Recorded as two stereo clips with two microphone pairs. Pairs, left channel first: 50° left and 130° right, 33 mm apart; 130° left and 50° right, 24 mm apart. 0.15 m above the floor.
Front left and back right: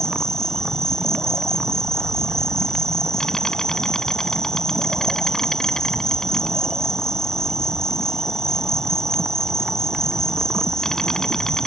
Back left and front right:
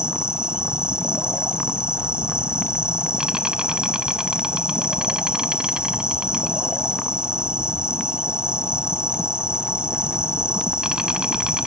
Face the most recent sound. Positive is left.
turn(degrees=-15)